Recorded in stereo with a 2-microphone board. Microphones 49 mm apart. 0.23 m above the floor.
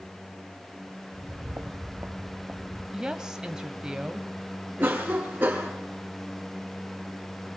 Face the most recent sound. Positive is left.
turn(degrees=-40)  # may be behind; listen again after turning